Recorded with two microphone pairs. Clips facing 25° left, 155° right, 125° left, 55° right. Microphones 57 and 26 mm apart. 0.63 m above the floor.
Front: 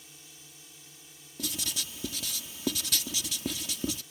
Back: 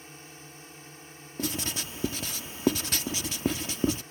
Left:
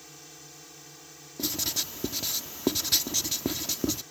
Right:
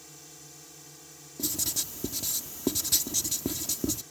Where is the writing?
175° left.